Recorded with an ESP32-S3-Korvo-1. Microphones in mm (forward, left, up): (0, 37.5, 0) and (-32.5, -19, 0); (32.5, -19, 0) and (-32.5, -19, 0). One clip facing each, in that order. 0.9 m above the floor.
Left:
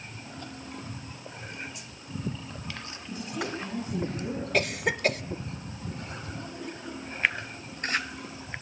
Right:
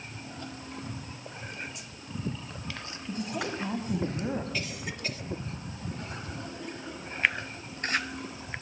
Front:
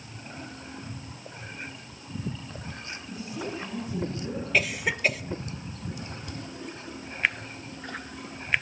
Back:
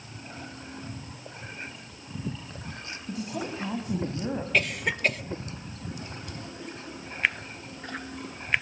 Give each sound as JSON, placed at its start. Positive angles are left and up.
{"t": 3.1, "sound": "a woman speaking", "azimuth_deg": -165, "distance_m": 5.0}
{"t": 4.5, "sound": "a cough", "azimuth_deg": 85, "distance_m": 1.4}